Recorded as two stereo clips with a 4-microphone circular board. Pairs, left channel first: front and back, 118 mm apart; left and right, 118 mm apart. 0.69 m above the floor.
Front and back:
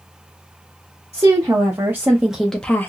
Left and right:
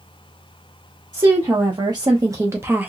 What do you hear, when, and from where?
1.1 s a woman speaking: 130° right, 1.1 m; by 2.9 s 35° right, 0.6 m